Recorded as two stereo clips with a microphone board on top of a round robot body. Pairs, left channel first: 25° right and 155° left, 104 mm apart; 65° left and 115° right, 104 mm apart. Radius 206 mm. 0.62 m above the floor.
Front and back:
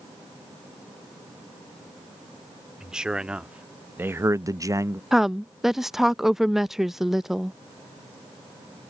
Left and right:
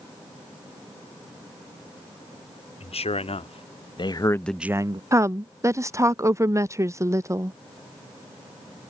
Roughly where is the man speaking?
Left.